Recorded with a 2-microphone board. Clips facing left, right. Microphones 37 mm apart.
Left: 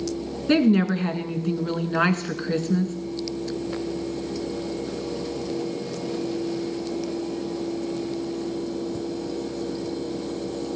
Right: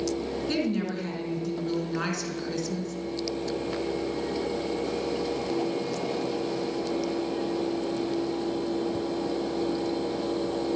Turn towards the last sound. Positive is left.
turn(degrees=45)  # may be behind; listen again after turning